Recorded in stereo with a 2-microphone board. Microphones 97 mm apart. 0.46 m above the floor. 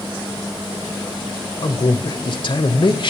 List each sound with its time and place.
1.6 s a man speaking: 60° left (ahead or behind), 1.6 m